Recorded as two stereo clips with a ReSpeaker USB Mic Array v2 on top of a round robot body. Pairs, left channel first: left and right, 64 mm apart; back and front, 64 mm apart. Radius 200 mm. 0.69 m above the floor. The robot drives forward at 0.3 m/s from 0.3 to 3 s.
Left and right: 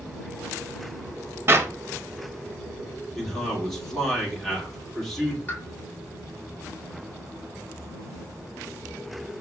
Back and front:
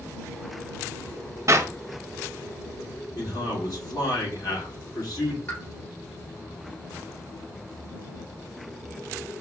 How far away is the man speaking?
About 2 m.